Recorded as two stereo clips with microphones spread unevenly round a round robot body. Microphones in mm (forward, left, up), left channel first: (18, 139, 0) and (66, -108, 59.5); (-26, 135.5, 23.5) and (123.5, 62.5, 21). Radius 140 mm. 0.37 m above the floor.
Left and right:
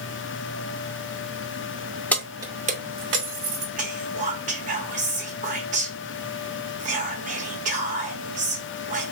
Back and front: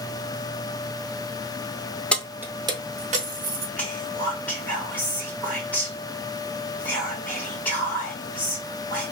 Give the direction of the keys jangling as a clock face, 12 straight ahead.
9 o'clock.